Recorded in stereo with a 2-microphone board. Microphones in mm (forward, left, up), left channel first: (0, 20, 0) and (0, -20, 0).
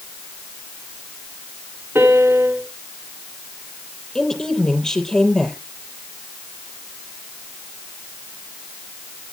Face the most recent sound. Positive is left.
turn(degrees=15)  # may be behind; listen again after turning